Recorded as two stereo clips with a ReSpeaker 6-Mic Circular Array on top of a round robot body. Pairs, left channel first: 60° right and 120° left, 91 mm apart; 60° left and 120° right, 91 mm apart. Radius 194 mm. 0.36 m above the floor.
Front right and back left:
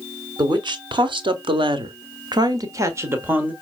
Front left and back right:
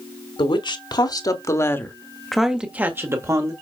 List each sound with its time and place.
0.4 s a woman speaking: 85° left, 2 m; by 3.5 s 170° right, 1.9 m